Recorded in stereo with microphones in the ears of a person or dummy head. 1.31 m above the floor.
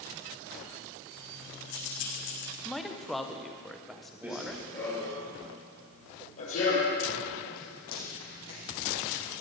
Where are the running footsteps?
5° right (ahead or behind), 1.4 m; by 9.3 s 55° left (ahead or behind), 5 m.